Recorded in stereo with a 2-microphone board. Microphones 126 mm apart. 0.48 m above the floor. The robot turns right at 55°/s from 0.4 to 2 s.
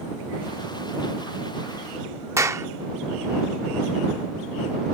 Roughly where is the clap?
Right.